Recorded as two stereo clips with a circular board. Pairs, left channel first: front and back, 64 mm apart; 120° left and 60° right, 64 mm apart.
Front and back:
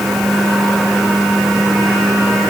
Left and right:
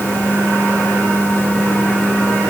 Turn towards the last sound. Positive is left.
No sound to turn to.